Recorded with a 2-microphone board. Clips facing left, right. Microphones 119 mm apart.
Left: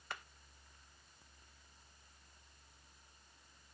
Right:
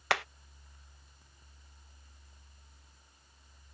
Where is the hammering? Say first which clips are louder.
Right 17 dB; 85° right.